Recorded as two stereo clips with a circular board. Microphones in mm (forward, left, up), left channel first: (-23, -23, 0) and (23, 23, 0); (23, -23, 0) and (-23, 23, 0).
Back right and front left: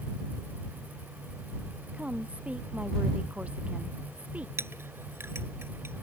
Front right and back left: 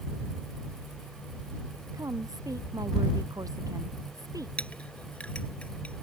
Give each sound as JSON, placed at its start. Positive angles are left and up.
{"t": 1.9, "sound": "a woman speaking", "azimuth_deg": 115}
{"t": 4.6, "sound": "a clink", "azimuth_deg": 20}